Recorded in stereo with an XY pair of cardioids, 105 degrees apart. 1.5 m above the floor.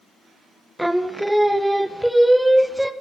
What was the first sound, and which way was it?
Singing, straight ahead.